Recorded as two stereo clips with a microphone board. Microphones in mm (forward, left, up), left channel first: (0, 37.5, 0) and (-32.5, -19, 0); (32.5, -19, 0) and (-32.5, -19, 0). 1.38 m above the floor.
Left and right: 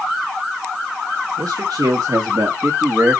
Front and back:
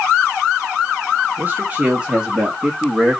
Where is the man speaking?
120° right, 2.5 m; by 3.2 s 80° right, 2.5 m.